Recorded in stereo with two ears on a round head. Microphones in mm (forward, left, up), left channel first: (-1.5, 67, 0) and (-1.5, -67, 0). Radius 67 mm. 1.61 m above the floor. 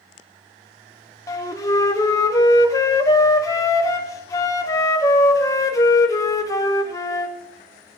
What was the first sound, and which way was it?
A flute, 20° left (ahead or behind).